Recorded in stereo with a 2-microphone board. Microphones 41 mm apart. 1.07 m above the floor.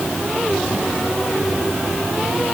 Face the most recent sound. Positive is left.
No sound to turn to.